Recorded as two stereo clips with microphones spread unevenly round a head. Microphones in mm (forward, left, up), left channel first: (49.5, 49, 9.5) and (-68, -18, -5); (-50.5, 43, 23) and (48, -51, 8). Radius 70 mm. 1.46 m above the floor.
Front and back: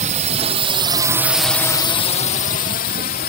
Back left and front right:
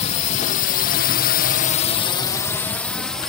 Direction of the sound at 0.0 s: Straight behind.